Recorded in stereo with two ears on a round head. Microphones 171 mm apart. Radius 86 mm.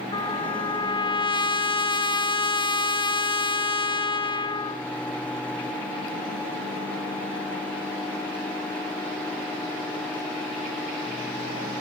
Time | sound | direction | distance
0.1 | a trumpet | 25° left (ahead or behind) | 1.3 m